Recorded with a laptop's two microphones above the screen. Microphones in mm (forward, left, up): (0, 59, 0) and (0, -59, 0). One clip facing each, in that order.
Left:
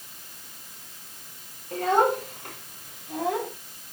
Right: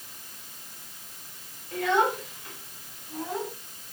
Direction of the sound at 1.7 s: 35° left (ahead or behind).